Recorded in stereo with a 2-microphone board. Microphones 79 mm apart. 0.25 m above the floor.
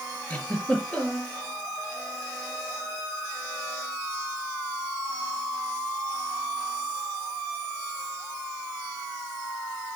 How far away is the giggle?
About 4.5 m.